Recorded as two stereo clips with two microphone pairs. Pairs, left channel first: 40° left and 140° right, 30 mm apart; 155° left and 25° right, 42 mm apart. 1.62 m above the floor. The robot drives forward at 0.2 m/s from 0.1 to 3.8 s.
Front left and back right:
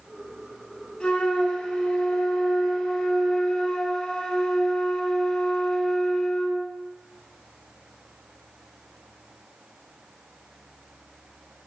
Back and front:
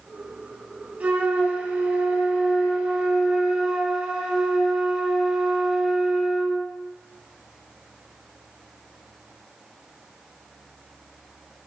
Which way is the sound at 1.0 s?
15° left.